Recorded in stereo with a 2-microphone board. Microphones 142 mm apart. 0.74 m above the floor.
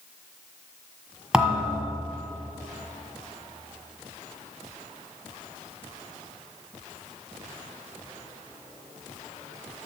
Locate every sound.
1.3 s a thud: 5° right (ahead or behind), 1.6 m